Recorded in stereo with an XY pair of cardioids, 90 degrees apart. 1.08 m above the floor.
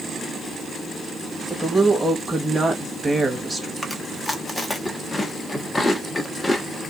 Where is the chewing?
20° left, 1.1 m.